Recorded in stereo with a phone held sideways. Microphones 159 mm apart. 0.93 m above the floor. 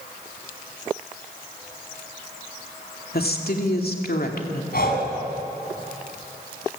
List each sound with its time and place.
3.1 s a woman speaking: 75° left (ahead or behind), 2.5 m; by 4.6 s 70° left (ahead or behind), 2.5 m
4.7 s breathing: 70° left (ahead or behind), 4 m